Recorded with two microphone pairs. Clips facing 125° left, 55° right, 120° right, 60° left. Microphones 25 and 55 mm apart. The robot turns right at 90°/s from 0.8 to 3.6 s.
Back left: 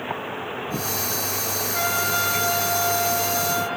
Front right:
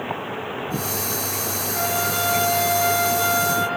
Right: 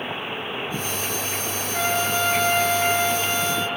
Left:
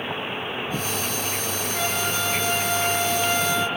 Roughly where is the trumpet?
Behind.